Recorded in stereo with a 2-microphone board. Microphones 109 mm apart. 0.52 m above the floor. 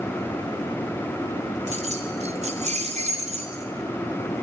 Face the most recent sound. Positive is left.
turn(degrees=-85)